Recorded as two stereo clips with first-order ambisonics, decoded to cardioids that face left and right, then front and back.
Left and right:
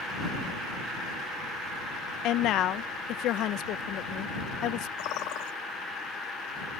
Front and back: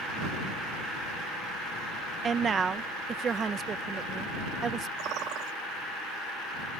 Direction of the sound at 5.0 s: 130° left.